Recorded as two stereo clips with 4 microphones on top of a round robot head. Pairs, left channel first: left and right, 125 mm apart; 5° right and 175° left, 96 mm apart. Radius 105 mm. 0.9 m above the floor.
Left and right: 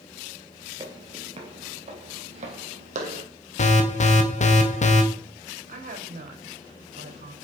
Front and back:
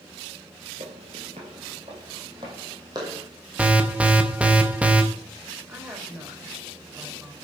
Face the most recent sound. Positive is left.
turn(degrees=-105)